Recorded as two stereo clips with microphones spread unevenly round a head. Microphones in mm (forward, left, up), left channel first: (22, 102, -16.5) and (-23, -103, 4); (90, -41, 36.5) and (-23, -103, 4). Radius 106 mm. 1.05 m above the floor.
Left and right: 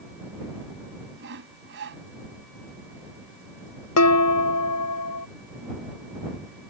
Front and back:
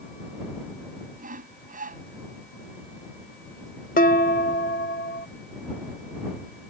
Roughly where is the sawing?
Behind right.